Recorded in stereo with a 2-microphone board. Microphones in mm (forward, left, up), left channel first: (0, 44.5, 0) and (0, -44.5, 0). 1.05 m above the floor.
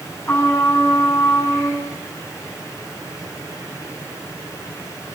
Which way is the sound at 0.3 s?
20° left (ahead or behind).